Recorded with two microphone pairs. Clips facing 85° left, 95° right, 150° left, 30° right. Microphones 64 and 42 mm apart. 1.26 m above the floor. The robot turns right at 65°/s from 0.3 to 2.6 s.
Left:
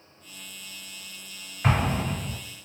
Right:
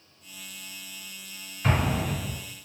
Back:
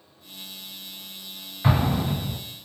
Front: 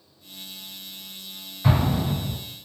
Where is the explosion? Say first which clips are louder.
Left 1 dB, even; 110° left, 1.3 m; by 2.4 s 160° left, 1.3 m.